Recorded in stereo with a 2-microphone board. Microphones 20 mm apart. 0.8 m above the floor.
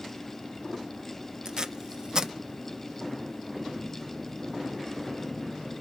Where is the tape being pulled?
35° right (ahead or behind), 0.6 m.